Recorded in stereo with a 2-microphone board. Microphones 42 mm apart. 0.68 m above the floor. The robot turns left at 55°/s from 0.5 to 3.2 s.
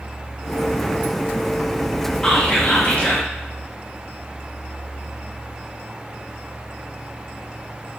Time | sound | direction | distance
2.2 | whispering | 155° left | 0.8 m